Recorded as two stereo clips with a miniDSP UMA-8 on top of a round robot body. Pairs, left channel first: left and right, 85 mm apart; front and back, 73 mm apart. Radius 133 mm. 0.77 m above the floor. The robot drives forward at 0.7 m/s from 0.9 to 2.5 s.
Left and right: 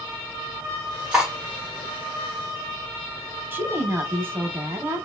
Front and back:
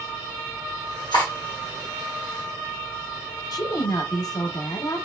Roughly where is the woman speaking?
Ahead right.